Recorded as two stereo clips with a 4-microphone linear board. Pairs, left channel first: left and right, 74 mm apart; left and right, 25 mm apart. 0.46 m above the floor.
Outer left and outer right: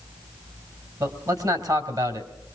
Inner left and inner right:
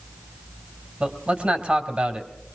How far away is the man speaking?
About 2.5 m.